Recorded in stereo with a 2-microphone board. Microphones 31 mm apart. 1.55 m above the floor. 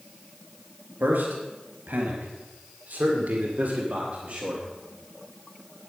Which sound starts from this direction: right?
A man speaking, at 1.0 s.